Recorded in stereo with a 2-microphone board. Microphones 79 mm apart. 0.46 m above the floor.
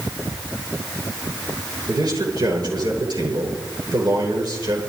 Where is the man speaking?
60° right (ahead or behind), 8 m.